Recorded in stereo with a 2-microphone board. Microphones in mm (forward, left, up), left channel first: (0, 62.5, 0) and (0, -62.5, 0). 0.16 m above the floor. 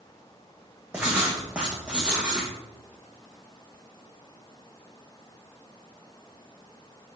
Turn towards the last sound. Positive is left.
turn(degrees=-10)  # may be behind; listen again after turning